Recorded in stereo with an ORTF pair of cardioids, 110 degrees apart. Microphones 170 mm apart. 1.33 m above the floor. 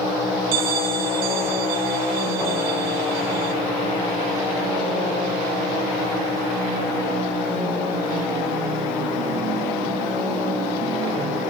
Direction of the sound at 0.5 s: 60° right.